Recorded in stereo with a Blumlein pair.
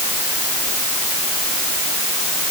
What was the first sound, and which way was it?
Only background noise.